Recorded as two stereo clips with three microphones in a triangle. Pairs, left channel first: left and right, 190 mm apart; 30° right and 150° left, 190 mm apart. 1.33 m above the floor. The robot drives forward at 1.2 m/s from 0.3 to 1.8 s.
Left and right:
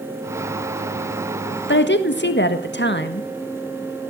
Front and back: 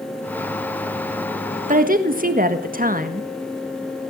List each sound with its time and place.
1.7 s a woman speaking: 105° left, 1.6 m; by 3.3 s 110° left, 1.6 m